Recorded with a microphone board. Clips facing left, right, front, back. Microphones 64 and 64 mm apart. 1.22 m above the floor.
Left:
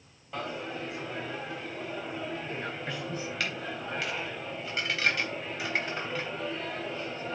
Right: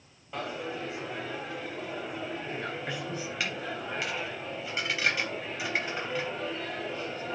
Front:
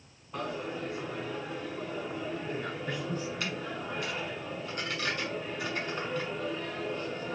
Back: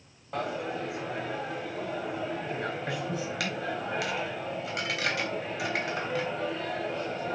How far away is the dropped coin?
About 3.5 m.